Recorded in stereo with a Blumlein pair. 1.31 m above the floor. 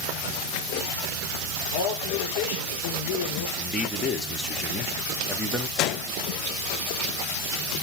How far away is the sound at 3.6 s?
About 2.5 m.